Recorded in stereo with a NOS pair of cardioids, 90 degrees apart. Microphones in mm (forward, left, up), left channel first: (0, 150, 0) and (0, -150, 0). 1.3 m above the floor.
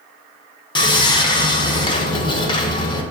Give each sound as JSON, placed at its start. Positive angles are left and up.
{"t": 0.8, "sound": "sawing", "azimuth_deg": 15, "distance_m": 0.6}